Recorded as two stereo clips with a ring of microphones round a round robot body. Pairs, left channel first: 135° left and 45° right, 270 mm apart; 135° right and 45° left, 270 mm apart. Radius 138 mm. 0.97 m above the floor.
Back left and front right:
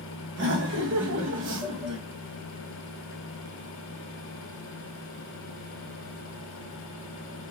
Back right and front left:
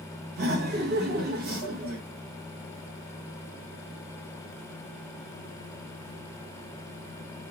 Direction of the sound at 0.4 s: 5° right.